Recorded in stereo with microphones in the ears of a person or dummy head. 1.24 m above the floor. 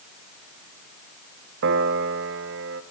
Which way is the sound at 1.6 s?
65° right (ahead or behind).